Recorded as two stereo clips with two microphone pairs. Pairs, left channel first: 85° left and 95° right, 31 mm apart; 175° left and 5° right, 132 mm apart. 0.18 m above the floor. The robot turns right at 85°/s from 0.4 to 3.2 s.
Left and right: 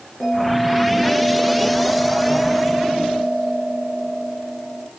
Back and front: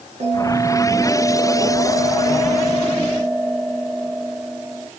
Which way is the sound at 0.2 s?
5° left.